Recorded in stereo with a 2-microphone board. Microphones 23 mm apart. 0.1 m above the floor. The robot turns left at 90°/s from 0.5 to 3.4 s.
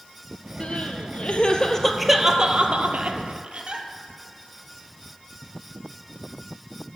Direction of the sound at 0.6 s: 45° left (ahead or behind).